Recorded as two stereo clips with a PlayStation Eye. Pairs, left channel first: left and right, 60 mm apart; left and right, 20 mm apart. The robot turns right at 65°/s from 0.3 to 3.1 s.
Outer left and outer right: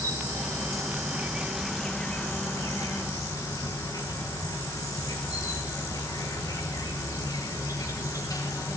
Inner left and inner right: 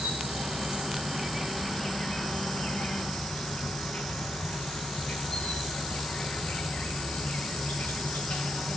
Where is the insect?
90° right, 1.4 m; by 8.8 s 90° left, 1.4 m.